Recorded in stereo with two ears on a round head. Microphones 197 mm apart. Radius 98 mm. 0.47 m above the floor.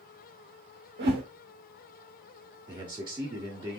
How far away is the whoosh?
About 1.4 m.